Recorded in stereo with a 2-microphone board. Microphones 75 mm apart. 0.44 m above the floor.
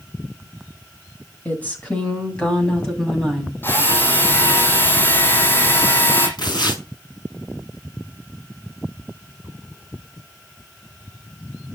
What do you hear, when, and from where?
1.4 s a woman speaking: 25° left (ahead or behind), 3 m; by 3.5 s 5° left (ahead or behind), 3.5 m
3.6 s a drill: 30° left (ahead or behind), 6 m
6.4 s tearing paper: 70° left (ahead or behind), 5.5 m